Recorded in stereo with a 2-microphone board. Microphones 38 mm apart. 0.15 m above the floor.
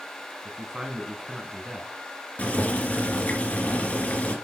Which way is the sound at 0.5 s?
20° right (ahead or behind).